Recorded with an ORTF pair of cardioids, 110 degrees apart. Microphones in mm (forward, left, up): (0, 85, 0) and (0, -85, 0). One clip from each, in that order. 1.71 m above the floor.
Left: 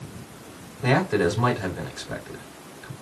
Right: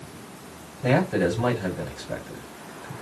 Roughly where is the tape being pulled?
I don't hear tape being pulled.